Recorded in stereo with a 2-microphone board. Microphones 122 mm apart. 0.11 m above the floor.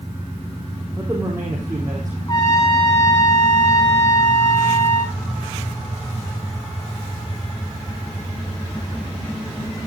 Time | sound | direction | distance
1.0 | a man speaking | 15° right (ahead or behind) | 3.5 m
2.3 | a trumpet | 30° left (ahead or behind) | 6 m